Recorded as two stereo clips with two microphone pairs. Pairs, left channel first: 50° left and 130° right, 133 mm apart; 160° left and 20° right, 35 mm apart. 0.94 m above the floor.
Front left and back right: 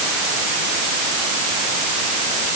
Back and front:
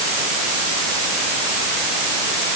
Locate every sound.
Only background noise.